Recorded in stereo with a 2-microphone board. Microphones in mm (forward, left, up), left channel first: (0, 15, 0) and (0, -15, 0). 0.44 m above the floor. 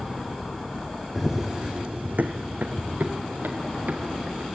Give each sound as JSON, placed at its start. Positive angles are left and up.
{"t": 1.1, "sound": "running footsteps", "side_deg": 0, "distance_m": 1.3}